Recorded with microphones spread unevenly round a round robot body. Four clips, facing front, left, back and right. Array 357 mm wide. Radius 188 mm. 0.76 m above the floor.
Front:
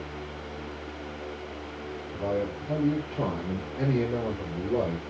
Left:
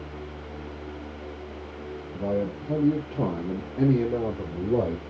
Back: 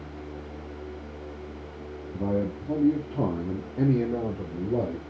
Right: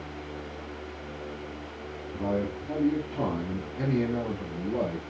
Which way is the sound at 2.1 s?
165° right.